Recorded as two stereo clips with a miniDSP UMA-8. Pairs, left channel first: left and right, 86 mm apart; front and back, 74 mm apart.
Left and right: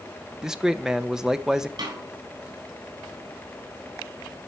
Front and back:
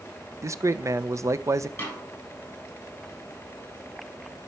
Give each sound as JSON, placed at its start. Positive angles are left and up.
{"t": 0.4, "sound": "a man speaking", "azimuth_deg": -170, "distance_m": 0.5}
{"t": 1.8, "sound": "a snare drum", "azimuth_deg": -60, "distance_m": 7.5}